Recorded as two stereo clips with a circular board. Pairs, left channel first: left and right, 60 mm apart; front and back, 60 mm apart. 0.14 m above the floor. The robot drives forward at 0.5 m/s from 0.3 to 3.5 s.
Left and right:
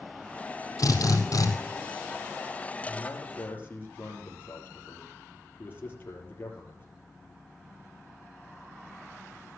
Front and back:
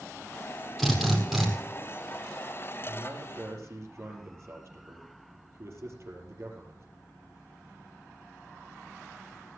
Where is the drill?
90° left, 4 m; by 1.5 s 95° left, 4 m.